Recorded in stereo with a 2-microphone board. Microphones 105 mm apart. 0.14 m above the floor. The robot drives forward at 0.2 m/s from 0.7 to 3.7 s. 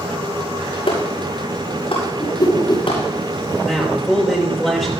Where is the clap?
65° left (ahead or behind), 8.5 m.